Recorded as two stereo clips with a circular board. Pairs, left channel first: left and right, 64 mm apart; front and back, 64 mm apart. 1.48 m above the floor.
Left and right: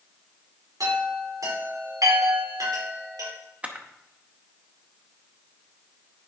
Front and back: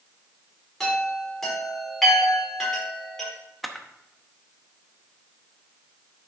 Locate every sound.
0.8 s a chime: 85° right, 5 m
3.6 s a camera shutter: 90° right, 0.9 m